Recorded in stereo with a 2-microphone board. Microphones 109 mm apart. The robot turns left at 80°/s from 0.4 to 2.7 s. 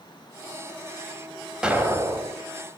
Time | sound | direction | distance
1.6 | an explosion | 5° right | 0.7 m